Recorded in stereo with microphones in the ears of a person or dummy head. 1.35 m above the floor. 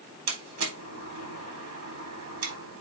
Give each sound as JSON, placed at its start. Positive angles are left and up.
{"t": 0.3, "sound": "a door slam", "side_deg": -85, "distance_m": 3.5}